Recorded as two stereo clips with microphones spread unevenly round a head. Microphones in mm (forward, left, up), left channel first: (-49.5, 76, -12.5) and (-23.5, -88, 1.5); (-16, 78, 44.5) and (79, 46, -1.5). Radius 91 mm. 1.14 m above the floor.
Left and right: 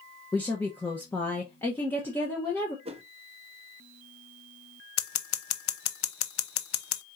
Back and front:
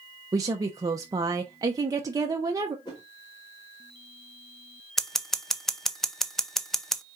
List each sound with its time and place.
0.3 s a woman speaking: 20° left, 0.7 m
2.9 s a whoosh: 135° right, 0.9 m
5.0 s scissors: 80° left, 0.7 m